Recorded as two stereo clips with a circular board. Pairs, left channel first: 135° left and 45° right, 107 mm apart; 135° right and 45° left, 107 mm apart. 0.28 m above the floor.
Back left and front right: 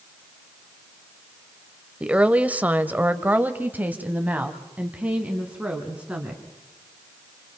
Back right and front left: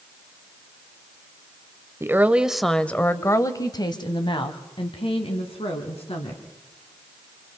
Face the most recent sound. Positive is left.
turn(degrees=-125)